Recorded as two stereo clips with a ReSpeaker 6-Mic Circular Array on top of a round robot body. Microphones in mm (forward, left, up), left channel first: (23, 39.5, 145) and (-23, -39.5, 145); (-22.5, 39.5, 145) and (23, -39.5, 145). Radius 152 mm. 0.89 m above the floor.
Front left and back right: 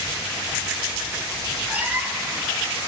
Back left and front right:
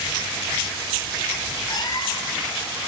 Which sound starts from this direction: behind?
A cat meowing, at 1.7 s.